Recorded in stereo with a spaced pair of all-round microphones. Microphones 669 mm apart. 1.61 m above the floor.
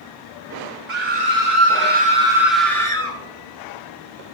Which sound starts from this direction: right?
A scream, at 0.9 s.